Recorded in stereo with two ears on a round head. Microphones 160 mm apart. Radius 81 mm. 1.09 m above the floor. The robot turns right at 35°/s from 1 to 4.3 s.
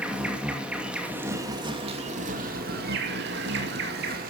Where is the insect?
175° right, 2.5 m; by 4.3 s 55° right, 2.5 m.